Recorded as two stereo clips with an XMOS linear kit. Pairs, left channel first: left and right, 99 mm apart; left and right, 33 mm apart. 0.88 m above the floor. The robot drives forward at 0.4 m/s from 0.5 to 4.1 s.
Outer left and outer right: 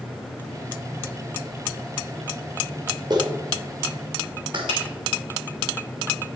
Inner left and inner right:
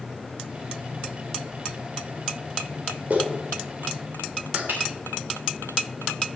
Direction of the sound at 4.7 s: 70° right (ahead or behind).